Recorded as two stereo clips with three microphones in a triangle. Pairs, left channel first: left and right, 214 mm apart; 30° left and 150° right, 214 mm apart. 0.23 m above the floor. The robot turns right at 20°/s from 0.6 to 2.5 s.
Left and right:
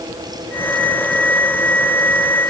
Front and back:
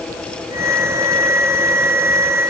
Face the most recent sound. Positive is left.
No sound to turn to.